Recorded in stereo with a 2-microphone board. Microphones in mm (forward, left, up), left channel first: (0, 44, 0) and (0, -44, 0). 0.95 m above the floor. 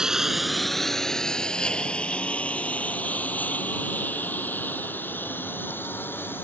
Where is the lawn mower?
10° right (ahead or behind); by 6.5 s 25° left (ahead or behind).